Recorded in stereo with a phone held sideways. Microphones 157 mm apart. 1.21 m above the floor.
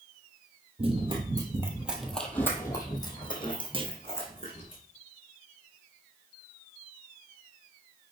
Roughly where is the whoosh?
I don't hear a whoosh.